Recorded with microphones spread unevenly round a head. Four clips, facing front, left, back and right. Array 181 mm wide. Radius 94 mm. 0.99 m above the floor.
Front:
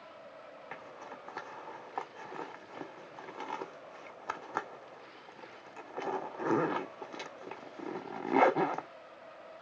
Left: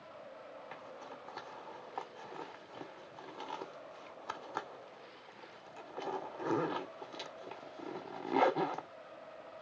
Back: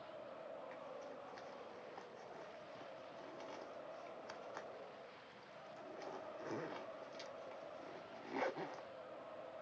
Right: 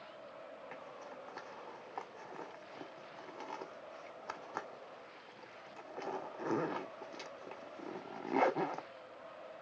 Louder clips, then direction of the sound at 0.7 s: Left 1 dB, front 4 dB; straight ahead.